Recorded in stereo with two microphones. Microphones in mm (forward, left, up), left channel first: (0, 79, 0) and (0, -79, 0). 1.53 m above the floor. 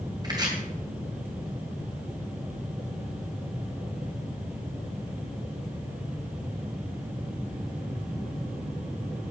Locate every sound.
0.2 s chopping: 25° right (ahead or behind), 3 m